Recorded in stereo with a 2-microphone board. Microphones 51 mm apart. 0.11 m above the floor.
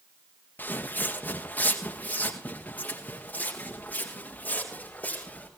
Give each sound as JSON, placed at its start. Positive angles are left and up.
{"t": 0.6, "sound": "footsteps", "side_deg": 35, "distance_m": 1.7}